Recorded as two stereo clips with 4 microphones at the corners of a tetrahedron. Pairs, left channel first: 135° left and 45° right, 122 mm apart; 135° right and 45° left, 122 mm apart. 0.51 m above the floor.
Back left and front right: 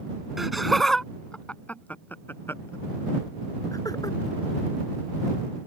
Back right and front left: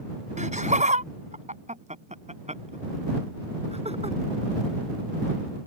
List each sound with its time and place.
0.4 s laughter: 45° left; by 4.2 s 75° left